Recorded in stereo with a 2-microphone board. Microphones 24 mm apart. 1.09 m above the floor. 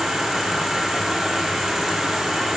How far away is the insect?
About 5 m.